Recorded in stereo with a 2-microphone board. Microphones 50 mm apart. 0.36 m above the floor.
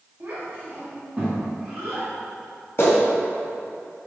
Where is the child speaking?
25° right (ahead or behind), 1.9 m; by 2.1 s centre (ahead or behind), 3 m.